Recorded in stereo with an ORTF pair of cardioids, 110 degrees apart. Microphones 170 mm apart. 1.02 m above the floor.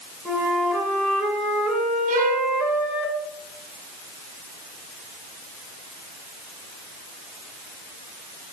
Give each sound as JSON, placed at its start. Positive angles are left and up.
{"t": 0.2, "sound": "a flute", "azimuth_deg": 5, "distance_m": 5.0}
{"t": 2.1, "sound": "a violin", "azimuth_deg": -50, "distance_m": 2.5}